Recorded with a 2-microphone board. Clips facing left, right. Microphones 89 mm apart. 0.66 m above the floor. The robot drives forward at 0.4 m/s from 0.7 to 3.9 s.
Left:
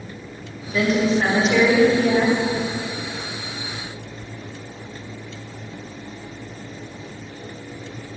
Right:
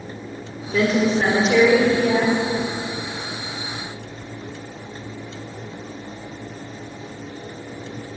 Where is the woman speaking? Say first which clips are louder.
Right 1 dB; 45° right (ahead or behind), 1.4 m; by 2.4 s 30° right (ahead or behind), 1.8 m.